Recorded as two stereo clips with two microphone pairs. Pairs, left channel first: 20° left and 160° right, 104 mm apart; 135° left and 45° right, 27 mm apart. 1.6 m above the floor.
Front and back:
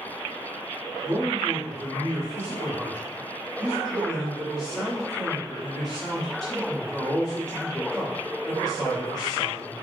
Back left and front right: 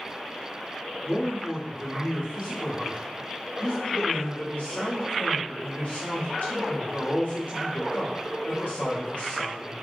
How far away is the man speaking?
About 1.1 m.